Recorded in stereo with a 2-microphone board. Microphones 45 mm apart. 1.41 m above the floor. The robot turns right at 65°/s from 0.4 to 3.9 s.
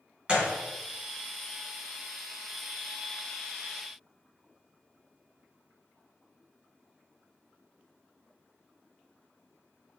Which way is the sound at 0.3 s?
25° right (ahead or behind).